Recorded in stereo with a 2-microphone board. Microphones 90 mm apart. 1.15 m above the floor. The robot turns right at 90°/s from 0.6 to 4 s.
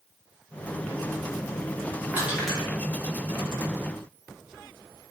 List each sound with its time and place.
2.1 s crushing: 25° right (ahead or behind), 0.9 m; by 2.7 s 20° left (ahead or behind), 0.9 m